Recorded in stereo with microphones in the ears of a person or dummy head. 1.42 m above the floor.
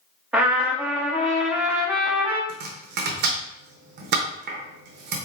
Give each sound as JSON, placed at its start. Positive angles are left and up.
{"t": 0.3, "sound": "a trumpet", "side_deg": -10, "distance_m": 0.6}
{"t": 2.5, "sound": "chopping", "side_deg": -55, "distance_m": 0.9}